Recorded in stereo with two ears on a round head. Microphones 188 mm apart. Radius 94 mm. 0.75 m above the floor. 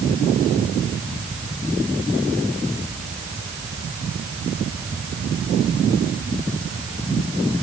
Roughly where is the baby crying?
I don't hear a baby crying.